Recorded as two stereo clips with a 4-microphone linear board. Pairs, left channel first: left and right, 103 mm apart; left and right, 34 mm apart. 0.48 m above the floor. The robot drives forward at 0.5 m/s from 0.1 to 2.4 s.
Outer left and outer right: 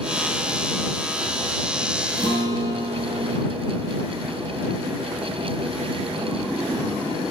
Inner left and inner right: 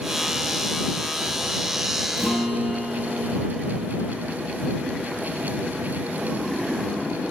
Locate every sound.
2.2 s a guitar: 35° right (ahead or behind), 2.5 m